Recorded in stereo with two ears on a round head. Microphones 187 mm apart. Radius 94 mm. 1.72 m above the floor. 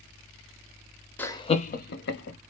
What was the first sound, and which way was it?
Laughter, 10° left (ahead or behind).